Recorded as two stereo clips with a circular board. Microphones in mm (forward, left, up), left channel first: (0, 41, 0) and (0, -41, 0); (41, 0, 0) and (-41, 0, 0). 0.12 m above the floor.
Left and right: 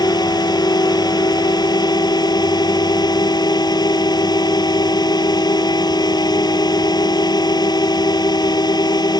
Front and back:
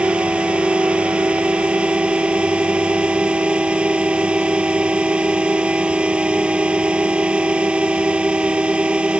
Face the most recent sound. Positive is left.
turn(degrees=105)